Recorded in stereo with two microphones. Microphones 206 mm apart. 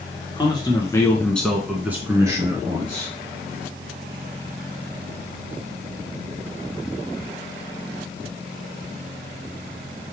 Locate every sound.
0.4 s a man speaking: 20° left (ahead or behind), 1.4 m; by 3.1 s 25° right (ahead or behind), 1.7 m